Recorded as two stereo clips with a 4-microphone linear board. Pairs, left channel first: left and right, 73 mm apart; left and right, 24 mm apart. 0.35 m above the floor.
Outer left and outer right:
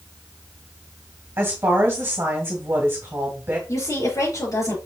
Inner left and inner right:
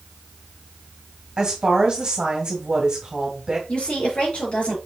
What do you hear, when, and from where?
1.4 s a woman speaking: 35° right (ahead or behind), 2.0 m
3.7 s a woman speaking: 50° left (ahead or behind), 5 m